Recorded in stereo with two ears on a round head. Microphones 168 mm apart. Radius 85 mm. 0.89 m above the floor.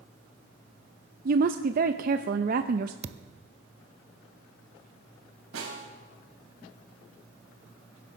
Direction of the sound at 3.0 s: 35° right (ahead or behind).